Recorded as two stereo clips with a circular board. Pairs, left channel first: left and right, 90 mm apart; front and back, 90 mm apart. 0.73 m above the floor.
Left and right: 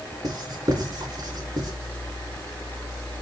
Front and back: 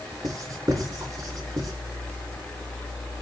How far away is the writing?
About 2.5 m.